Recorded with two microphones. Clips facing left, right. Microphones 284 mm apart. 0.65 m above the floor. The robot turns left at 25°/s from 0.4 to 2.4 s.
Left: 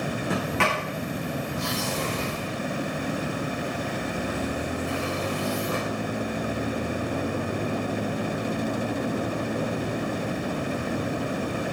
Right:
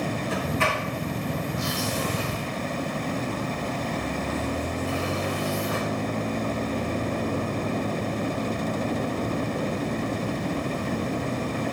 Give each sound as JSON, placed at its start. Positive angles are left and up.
{"t": 0.3, "sound": "a sliding door", "side_deg": 85, "distance_m": 7.5}